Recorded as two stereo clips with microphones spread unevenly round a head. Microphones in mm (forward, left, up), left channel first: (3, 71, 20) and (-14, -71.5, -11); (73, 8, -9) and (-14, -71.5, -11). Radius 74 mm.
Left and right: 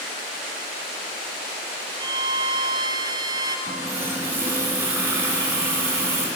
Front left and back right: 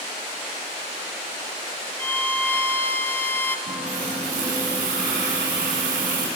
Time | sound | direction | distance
2.0 | a violin | 30° right | 1.8 m
3.7 | a running tap | 175° right | 8 m